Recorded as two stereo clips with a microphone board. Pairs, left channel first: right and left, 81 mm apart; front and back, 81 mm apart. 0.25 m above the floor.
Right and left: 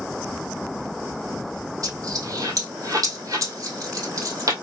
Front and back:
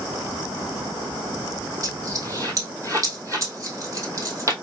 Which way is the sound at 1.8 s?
130° left.